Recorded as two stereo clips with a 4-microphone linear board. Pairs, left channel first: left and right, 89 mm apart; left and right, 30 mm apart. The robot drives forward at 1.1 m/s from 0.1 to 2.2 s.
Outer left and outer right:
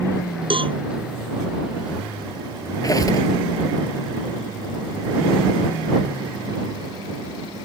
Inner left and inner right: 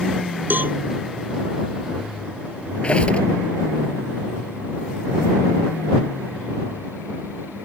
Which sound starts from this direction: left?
A squeak, at 2.8 s.